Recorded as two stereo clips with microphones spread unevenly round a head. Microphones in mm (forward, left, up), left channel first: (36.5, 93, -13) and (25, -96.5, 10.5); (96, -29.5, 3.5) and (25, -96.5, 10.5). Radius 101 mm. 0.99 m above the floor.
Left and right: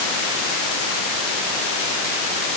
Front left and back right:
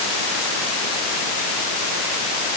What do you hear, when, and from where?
Only background noise.